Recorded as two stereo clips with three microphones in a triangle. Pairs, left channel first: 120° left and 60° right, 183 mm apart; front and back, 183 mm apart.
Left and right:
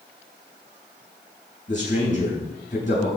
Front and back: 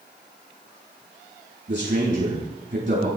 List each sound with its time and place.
1.7 s a man speaking: 165° left, 6 m